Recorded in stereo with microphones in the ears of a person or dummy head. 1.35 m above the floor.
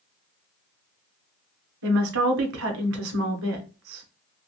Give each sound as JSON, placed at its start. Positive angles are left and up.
{"t": 1.8, "sound": "a woman speaking", "side_deg": -85, "distance_m": 0.9}